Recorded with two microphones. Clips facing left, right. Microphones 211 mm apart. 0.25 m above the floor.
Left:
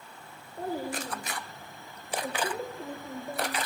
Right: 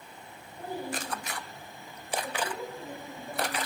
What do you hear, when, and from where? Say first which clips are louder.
0.6 s a child speaking: left 3 dB; 60° left (ahead or behind), 7 m; by 3.6 s 35° left (ahead or behind), 7 m